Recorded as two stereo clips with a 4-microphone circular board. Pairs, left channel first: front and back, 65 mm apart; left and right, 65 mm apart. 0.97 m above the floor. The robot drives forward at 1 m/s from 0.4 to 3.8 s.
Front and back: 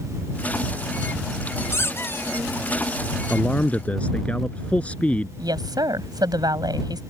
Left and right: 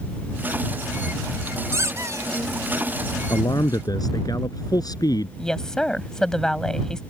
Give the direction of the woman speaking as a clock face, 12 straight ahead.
6 o'clock.